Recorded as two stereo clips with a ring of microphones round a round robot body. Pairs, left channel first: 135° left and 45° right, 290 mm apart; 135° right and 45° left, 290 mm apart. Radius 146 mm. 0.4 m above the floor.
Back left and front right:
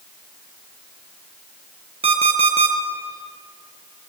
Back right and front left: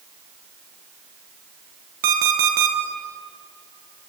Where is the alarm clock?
25° left, 3.5 m.